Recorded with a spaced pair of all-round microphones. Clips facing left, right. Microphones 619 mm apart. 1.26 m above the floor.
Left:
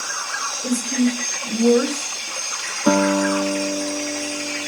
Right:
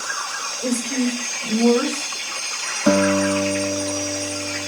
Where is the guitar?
15° right (ahead or behind), 1.6 m.